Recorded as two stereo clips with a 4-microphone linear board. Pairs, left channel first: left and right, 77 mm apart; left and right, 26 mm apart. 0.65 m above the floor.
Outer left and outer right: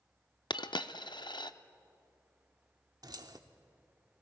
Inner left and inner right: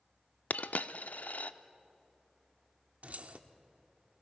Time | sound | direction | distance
0.5 | a dropped coin | 75° left (ahead or behind) | 0.6 m
3.0 | keys jangling | 60° right (ahead or behind) | 0.9 m